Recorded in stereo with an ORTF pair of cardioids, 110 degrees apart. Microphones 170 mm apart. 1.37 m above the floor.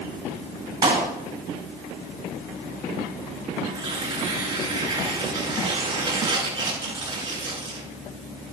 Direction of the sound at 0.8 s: 25° right.